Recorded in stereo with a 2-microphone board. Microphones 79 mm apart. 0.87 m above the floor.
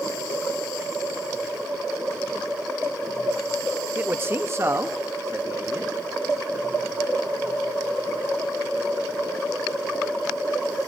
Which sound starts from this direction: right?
A man speaking, at 4.0 s.